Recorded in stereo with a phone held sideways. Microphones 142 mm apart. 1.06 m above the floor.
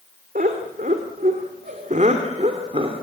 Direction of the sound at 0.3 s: 85° right.